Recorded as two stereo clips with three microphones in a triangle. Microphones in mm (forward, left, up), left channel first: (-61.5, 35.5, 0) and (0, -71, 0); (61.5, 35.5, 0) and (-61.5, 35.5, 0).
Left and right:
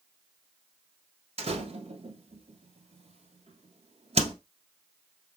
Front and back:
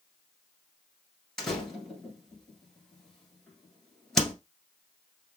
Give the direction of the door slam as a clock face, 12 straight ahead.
3 o'clock.